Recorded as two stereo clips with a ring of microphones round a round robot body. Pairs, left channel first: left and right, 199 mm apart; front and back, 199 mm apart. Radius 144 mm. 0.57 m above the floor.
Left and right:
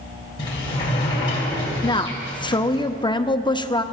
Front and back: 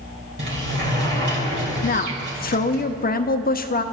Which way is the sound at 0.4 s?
160° left.